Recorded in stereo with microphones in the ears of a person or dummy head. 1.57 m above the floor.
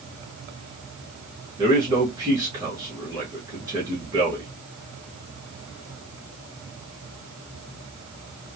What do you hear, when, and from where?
1.6 s a man speaking: 15° right (ahead or behind), 2.5 m